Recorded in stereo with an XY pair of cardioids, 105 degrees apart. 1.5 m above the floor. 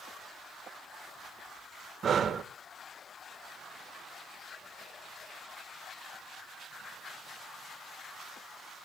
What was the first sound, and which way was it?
Breathing, 45° right.